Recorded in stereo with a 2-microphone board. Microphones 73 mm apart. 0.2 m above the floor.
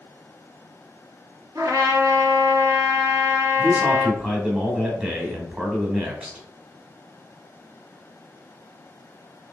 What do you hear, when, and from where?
1.6 s a trumpet: 45° right (ahead or behind), 2.5 m
3.6 s a man speaking: 10° right (ahead or behind), 1.5 m